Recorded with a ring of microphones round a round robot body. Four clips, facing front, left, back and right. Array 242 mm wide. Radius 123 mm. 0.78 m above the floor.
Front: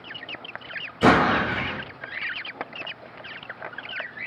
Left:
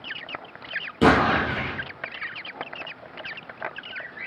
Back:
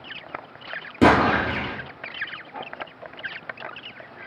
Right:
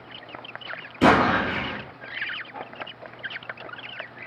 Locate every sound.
1.0 s an explosion: 160° left, 4 m